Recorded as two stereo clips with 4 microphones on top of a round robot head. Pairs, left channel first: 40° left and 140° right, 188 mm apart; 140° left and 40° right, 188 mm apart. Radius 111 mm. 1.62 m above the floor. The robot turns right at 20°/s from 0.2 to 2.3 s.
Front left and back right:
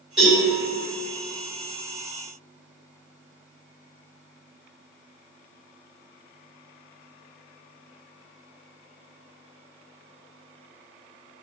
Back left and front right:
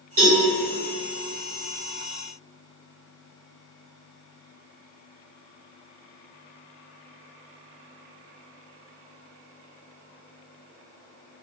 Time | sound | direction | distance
0.2 | a cowbell | 55° right | 1.3 m